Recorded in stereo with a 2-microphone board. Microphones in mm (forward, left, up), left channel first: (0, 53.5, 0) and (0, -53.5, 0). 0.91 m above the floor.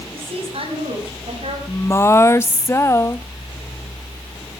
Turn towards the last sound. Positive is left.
turn(degrees=25)  # may be behind; listen again after turning